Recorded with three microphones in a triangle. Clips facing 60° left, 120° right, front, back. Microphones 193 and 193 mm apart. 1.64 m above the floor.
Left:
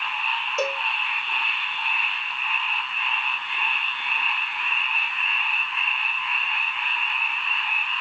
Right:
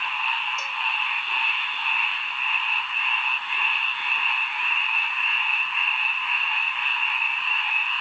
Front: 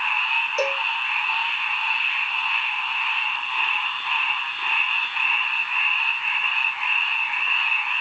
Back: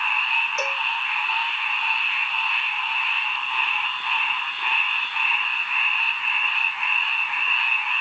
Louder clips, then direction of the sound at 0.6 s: Left 12 dB, front 7 dB; 55° left.